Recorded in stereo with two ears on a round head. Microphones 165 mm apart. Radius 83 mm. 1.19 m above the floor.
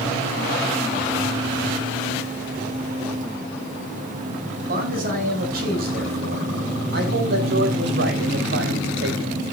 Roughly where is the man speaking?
Right.